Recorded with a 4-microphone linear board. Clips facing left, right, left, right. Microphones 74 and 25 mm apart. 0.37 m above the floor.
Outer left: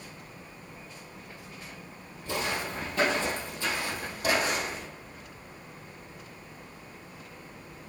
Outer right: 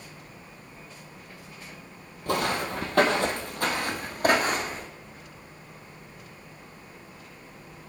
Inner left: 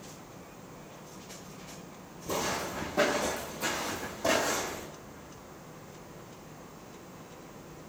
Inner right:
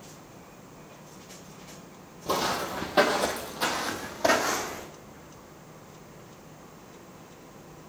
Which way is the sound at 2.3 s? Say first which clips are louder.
Outer right 5 dB, inner right 5 dB; 55° right (ahead or behind).